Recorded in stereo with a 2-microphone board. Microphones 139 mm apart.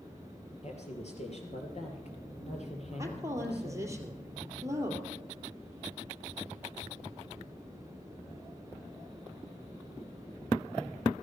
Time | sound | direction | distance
0.6 | a woman speaking | 55° left (ahead or behind) | 3 m
3.0 | a woman speaking | 20° right (ahead or behind) | 2.5 m